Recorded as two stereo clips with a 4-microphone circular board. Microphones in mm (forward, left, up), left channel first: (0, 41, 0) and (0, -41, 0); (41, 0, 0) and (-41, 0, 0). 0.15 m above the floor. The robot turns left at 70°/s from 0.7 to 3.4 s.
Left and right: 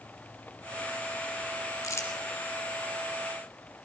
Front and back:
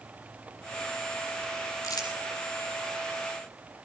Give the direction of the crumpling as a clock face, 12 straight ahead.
10 o'clock.